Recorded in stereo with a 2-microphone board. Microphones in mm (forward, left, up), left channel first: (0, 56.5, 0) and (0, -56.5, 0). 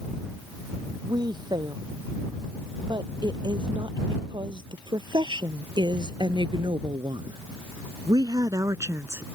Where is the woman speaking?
45° right (ahead or behind); by 9.2 s 25° right (ahead or behind).